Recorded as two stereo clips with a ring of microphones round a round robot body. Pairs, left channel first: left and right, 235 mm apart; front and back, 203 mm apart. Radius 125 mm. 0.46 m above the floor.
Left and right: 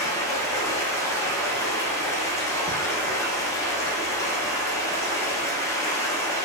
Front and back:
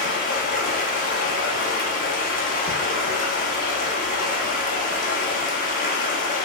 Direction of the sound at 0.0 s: 20° left.